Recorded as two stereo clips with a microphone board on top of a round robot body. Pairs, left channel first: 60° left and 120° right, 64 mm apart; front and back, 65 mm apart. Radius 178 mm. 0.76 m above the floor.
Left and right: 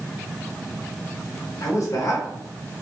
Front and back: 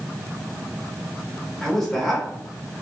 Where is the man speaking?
85° left, 2 m.